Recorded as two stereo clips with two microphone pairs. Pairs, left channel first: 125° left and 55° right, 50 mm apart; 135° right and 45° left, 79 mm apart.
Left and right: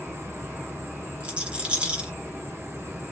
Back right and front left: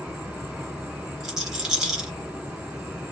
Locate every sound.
0.0 s an insect: 30° right, 1.1 m
1.2 s a rattle: 25° right, 1.0 m